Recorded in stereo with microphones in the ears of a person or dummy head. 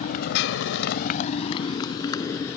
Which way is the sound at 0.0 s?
45° left (ahead or behind).